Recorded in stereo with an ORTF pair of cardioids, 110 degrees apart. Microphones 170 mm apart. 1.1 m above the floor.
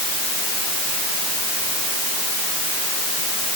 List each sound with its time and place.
Only background noise.